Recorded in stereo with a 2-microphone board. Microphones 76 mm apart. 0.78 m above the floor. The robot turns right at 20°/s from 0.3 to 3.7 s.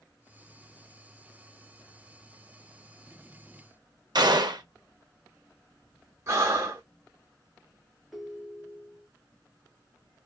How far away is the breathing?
About 0.9 m.